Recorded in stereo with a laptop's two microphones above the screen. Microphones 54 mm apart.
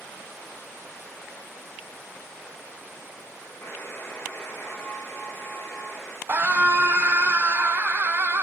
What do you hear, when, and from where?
3.6 s a buzzer: 50° left (ahead or behind), 0.9 m
6.3 s a scream: 40° right (ahead or behind), 0.8 m